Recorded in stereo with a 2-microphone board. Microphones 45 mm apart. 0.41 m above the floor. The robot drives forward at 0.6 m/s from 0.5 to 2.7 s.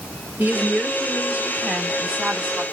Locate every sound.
0.4 s a woman speaking: 30° right (ahead or behind), 1.8 m; by 2.6 s 20° right (ahead or behind), 2.5 m